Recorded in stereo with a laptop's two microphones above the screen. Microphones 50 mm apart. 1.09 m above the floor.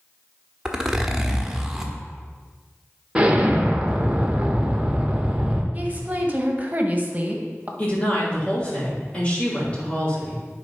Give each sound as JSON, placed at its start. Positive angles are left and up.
{"t": 0.7, "sound": "a zipper", "side_deg": -10, "distance_m": 1.2}
{"t": 3.1, "sound": "an explosion", "side_deg": -20, "distance_m": 1.2}
{"t": 5.7, "sound": "a woman speaking", "side_deg": -30, "distance_m": 1.5}
{"t": 7.8, "sound": "a woman speaking", "side_deg": 20, "distance_m": 3.5}